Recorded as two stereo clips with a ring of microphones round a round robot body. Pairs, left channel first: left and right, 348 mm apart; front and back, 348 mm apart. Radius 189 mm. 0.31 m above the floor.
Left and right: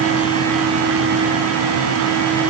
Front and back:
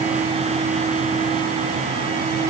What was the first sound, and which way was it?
Only background noise.